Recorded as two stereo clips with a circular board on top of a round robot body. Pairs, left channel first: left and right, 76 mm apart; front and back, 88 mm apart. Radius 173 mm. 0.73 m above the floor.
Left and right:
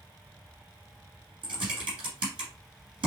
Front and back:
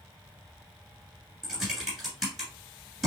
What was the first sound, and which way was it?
Typing on a keyboard, 90° right.